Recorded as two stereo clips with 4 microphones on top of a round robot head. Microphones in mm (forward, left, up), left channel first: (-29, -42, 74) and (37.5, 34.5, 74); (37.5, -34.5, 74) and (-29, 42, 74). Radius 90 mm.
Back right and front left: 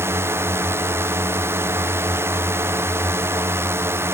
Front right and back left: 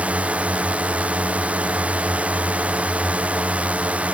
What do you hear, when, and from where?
0.0 s a drone: 70° left